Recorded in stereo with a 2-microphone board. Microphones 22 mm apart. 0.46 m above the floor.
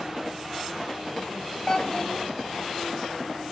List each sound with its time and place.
1.7 s a child speaking: 35° left (ahead or behind), 1.4 m